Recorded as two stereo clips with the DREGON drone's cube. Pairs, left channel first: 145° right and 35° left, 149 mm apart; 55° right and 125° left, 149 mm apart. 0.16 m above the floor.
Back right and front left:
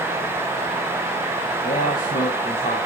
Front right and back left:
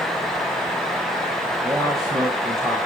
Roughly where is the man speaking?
Behind.